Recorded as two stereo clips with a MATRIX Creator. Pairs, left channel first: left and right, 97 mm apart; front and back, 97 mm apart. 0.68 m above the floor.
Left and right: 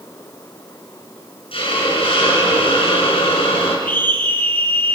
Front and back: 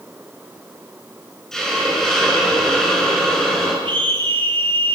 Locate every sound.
1.5 s a hiss: 85° left, 7 m
3.9 s a scream: 160° left, 9.5 m